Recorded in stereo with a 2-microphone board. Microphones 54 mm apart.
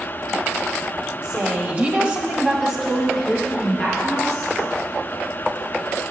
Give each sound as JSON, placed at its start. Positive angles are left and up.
{"t": 1.2, "sound": "a woman speaking", "side_deg": -35, "distance_m": 1.2}